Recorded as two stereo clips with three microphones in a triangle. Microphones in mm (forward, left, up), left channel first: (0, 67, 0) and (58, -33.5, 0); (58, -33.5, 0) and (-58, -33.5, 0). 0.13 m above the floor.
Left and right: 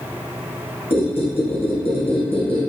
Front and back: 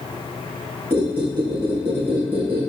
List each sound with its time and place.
0.9 s a squeak: 105° left, 1.4 m